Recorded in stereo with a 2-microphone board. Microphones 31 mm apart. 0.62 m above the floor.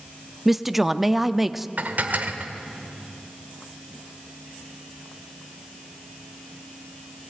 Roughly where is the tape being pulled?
No tape being pulled in this recording.